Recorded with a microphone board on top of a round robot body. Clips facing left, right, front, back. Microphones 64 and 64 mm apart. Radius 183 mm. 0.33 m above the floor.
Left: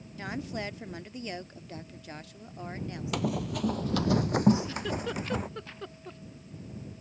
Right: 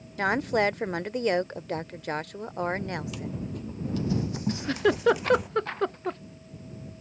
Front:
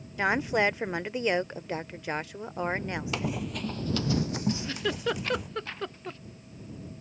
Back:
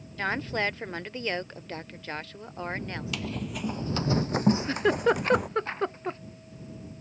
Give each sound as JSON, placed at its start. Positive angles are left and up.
{"t": 0.2, "sound": "a woman speaking", "azimuth_deg": -75}
{"t": 3.1, "sound": "running footsteps", "azimuth_deg": 60}
{"t": 4.5, "sound": "a giggle", "azimuth_deg": -125}